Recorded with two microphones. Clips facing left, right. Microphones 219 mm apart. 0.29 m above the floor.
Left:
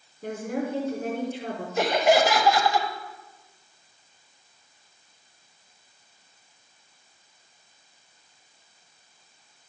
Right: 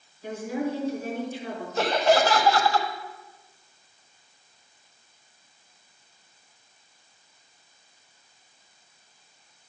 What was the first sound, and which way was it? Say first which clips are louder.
A woman speaking: even; 60° left (ahead or behind).